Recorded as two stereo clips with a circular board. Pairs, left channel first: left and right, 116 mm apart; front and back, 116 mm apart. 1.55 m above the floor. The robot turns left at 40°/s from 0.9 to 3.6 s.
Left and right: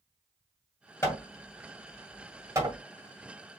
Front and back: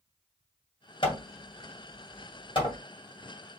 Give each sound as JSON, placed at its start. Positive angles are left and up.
{"t": 1.0, "sound": "hammering", "azimuth_deg": 25, "distance_m": 2.0}